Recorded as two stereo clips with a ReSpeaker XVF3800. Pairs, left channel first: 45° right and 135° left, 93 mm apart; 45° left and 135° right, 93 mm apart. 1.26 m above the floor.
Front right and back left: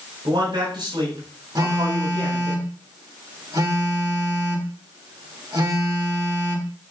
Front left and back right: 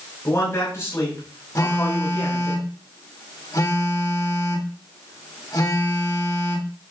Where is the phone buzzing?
95° left, 2 m.